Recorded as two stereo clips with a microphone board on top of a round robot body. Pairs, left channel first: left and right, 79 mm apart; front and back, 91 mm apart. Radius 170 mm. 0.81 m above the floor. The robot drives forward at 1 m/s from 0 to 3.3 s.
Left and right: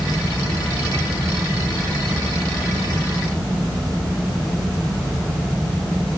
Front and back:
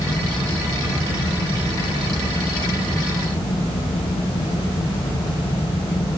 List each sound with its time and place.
Only background noise.